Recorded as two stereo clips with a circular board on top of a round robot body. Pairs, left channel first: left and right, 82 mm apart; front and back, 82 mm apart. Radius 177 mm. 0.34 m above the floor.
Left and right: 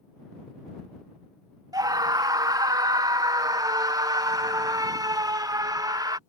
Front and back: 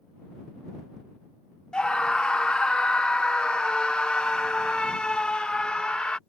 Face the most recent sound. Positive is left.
turn(degrees=-75)